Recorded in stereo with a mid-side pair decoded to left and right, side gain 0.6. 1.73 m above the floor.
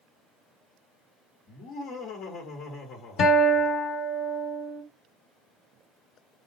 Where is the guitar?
55° left, 1.7 m.